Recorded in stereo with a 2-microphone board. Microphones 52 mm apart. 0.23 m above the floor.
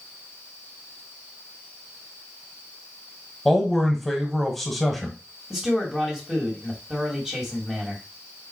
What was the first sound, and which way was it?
A man speaking, centre (ahead or behind).